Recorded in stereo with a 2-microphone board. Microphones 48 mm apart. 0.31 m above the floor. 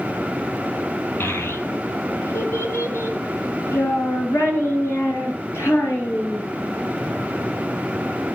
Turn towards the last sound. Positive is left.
turn(degrees=70)  # may be behind; listen again after turning